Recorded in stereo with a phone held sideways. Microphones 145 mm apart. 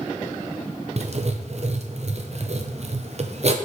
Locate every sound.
1.0 s writing: 50° right (ahead or behind), 0.6 m